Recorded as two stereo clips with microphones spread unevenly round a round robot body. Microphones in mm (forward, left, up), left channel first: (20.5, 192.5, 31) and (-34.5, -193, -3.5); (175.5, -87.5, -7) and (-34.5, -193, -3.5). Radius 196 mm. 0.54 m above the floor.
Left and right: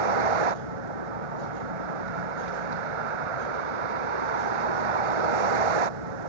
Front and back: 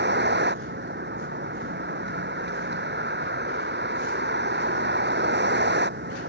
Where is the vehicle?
110° right.